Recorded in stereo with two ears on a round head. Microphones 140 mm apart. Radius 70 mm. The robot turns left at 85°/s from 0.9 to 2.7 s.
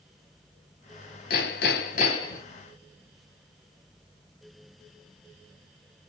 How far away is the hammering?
About 3.5 m.